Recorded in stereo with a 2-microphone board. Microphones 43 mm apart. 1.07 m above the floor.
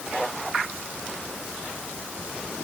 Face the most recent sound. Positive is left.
No sound to turn to.